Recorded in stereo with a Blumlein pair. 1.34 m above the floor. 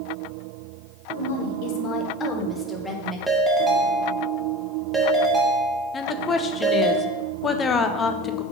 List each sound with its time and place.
1.1 s a woman speaking: 70° left, 1.0 m; by 3.2 s 5° right, 1.7 m
3.3 s a ringtone: 5° right, 1.3 m
5.9 s a woman speaking: 20° left, 0.6 m